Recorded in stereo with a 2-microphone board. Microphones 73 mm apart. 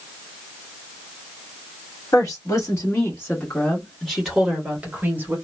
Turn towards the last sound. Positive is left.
turn(degrees=-30)  # may be behind; listen again after turning